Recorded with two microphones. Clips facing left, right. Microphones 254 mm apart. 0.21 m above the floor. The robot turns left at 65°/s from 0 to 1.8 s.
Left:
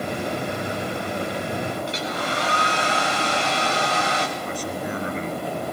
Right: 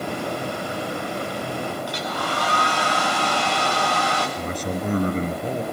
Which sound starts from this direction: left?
A hair dryer, at 1.9 s.